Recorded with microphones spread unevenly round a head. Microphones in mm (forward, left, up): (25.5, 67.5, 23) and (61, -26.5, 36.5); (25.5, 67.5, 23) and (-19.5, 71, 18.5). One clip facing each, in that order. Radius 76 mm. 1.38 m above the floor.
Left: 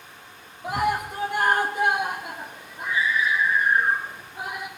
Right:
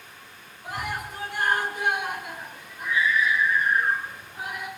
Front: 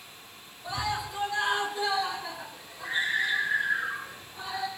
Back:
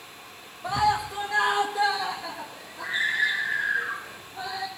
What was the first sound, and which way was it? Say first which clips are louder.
A scream: left 8 dB, back 8 dB; 145° left.